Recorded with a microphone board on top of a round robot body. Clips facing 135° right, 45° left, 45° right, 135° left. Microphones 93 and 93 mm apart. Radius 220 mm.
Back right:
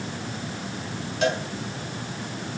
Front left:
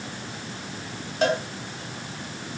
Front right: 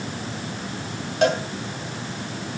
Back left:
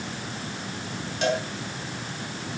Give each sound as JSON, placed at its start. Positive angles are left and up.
{"t": 1.2, "sound": "a cowbell", "azimuth_deg": -5, "distance_m": 5.5}